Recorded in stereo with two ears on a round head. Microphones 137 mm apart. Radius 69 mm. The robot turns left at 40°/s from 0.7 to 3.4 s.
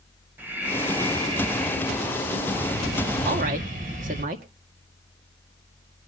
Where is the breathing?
15° right, 3 m; by 4.2 s 120° right, 3 m.